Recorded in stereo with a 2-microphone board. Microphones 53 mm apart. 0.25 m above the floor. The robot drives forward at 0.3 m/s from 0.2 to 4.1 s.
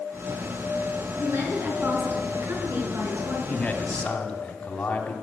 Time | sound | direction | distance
1.2 | a woman speaking | 50° right (ahead or behind) | 3 m
3.5 | a man speaking | 20° left (ahead or behind) | 1.6 m